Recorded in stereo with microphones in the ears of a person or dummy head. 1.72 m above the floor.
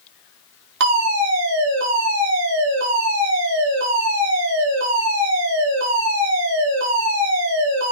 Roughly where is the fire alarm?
Right.